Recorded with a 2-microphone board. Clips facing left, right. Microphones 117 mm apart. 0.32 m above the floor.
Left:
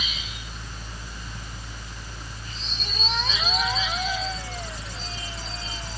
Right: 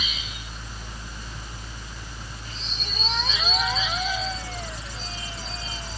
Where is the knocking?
I don't hear knocking.